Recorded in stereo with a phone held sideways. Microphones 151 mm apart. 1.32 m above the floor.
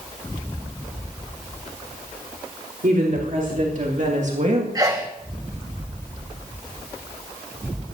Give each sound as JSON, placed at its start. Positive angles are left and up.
{"t": 2.8, "sound": "a woman speaking", "side_deg": -60, "distance_m": 3.5}
{"t": 4.8, "sound": "a sneeze", "side_deg": -25, "distance_m": 0.7}